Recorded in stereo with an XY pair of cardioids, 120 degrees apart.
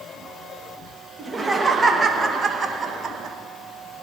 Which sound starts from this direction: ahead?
Laughter, at 1.2 s.